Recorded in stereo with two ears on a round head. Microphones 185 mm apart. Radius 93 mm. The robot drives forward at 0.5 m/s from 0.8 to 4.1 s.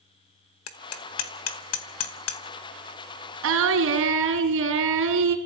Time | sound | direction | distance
0.7 | hammering | 70° left (ahead or behind) | 1.6 m
3.4 | singing | 75° right (ahead or behind) | 4.5 m